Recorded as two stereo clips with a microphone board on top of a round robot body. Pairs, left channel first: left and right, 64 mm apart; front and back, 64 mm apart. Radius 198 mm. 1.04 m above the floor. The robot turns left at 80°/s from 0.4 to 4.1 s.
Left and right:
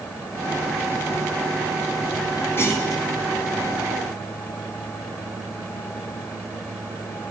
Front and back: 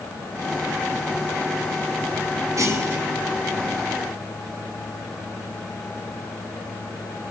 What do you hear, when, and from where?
2.6 s a clunk: 145° left, 2.0 m; by 3.0 s 105° left, 2.0 m